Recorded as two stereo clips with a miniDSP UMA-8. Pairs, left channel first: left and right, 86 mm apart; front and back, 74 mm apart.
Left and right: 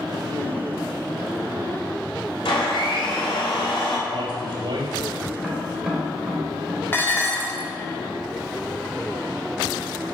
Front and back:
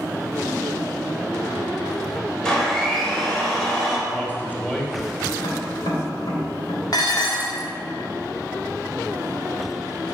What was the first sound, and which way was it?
A blender, 80° left.